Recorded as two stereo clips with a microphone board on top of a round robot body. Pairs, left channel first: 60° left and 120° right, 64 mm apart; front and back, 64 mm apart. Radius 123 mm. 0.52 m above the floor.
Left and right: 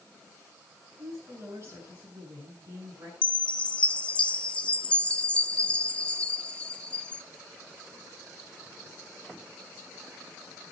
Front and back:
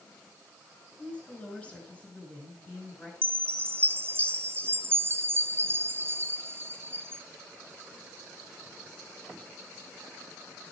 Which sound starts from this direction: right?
A woman speaking, at 1.0 s.